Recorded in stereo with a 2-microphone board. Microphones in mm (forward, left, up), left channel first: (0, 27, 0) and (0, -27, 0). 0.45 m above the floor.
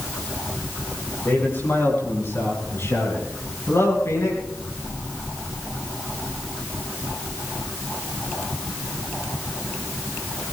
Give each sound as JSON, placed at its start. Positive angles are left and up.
{"t": 1.2, "sound": "a man speaking", "side_deg": 40, "distance_m": 8.0}